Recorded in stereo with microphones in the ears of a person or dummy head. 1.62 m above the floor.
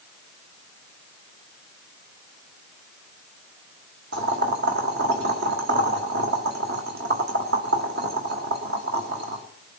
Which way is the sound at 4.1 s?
60° right (ahead or behind).